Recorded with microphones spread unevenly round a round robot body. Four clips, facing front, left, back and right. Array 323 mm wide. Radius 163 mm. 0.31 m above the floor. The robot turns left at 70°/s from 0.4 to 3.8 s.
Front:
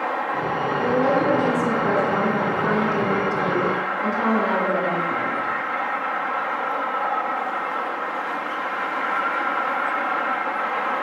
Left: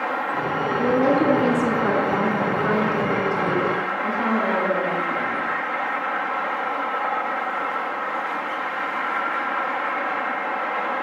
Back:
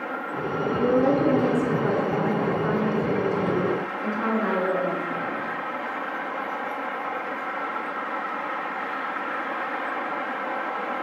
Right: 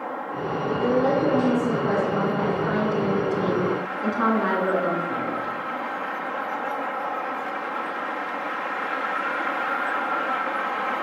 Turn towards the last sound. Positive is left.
turn(degrees=-65)